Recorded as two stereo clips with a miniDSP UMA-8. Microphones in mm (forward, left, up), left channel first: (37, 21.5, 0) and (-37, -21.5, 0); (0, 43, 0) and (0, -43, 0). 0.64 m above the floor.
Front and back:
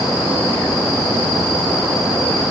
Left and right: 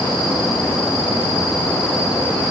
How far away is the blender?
I don't hear a blender.